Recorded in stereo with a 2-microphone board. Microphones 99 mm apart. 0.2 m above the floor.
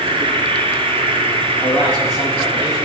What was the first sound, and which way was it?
An insect, 55° right (ahead or behind).